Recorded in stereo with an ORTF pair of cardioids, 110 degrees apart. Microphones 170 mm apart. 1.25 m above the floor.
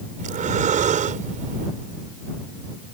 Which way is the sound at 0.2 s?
45° right.